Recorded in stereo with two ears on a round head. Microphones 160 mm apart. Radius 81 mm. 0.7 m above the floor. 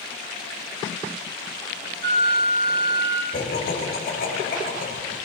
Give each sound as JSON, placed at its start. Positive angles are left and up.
{"t": 2.0, "sound": "a flute", "side_deg": -60, "distance_m": 5.0}
{"t": 3.3, "sound": "laughter", "side_deg": 50, "distance_m": 8.0}